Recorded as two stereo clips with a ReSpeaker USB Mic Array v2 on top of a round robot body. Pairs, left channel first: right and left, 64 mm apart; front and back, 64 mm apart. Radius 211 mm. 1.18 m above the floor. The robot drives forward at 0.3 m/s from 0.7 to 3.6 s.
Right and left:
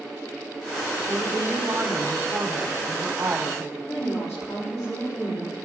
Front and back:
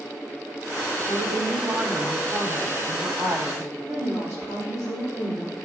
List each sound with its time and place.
1.1 s a woman speaking: 145° left, 3 m; by 3.7 s 155° left, 4 m
3.9 s a woman speaking: 125° right, 3.5 m